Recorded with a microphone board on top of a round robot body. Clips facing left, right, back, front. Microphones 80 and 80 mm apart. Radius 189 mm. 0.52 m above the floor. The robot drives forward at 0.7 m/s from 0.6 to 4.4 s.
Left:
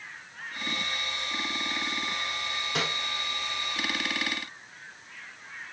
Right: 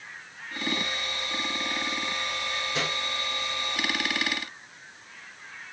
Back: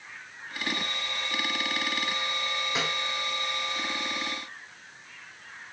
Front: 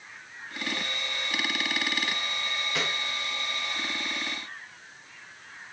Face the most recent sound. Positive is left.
turn(degrees=135)